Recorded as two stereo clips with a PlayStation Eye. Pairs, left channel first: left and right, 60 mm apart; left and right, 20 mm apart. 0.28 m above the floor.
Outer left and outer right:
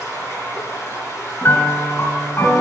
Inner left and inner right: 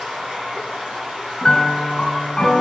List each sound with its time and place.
0.0 s running water: 80° right, 7 m
1.4 s a piano: 40° left (ahead or behind), 2.0 m